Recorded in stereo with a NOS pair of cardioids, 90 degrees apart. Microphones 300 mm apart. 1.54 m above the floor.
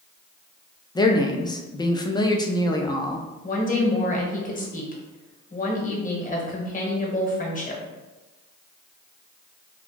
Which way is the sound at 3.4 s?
25° left.